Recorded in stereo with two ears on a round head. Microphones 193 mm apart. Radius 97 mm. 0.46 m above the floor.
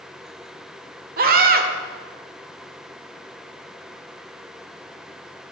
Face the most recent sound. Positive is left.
turn(degrees=-40)  # may be behind; listen again after turning